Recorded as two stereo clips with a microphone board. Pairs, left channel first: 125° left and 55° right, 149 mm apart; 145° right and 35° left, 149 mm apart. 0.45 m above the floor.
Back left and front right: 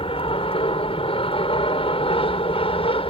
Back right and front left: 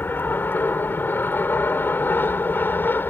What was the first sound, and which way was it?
An aircraft, 145° left.